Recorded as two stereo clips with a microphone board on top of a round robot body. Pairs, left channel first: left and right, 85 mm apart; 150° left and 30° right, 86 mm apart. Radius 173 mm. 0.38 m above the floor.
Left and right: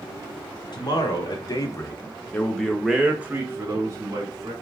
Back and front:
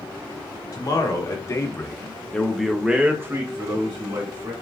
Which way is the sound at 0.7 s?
115° left.